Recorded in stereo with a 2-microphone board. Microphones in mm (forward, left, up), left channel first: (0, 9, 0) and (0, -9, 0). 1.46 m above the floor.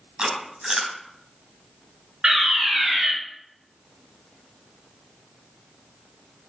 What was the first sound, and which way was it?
Chewing, 50° right (ahead or behind).